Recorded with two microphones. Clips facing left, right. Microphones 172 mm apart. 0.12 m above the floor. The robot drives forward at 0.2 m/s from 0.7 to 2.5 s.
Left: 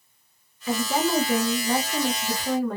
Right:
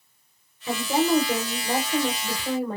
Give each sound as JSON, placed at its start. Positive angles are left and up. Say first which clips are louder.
{"t": 0.7, "sound": "a woman speaking", "louder": "right 2 dB", "side_deg": -20, "distance_m": 1.3}